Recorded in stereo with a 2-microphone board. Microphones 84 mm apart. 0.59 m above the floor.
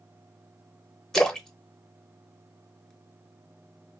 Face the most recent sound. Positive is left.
turn(degrees=5)  # may be behind; listen again after turning